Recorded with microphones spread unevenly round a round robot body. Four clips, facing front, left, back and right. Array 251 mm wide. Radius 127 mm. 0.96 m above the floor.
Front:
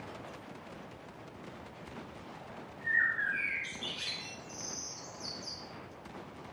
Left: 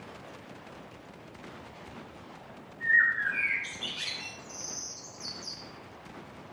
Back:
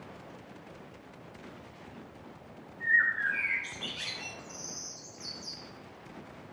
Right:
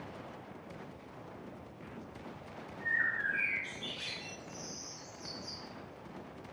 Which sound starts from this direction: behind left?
A bird, at 2.8 s.